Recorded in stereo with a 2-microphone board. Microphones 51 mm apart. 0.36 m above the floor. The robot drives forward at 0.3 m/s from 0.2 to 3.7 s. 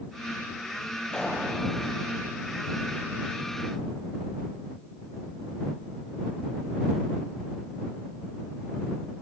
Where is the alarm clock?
I don't hear an alarm clock.